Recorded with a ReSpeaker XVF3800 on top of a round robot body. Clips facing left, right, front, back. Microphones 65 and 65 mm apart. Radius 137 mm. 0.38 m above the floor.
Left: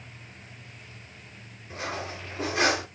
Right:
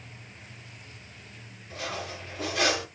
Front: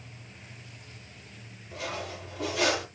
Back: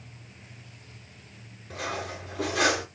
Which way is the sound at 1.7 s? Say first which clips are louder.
Left 1 dB, back 3 dB; 150° left.